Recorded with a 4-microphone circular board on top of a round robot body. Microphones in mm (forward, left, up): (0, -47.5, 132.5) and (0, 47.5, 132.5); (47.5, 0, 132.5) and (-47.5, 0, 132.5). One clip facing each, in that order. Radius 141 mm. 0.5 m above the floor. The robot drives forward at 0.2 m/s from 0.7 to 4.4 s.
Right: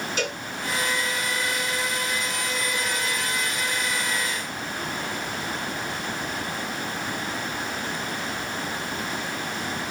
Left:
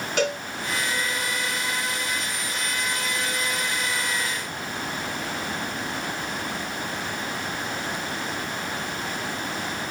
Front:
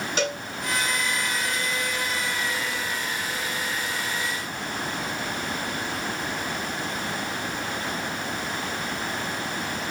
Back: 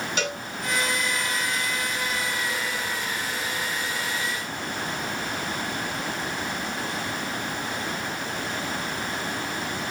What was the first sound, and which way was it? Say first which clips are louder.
A cowbell: left 7 dB, front 4 dB; 60° left.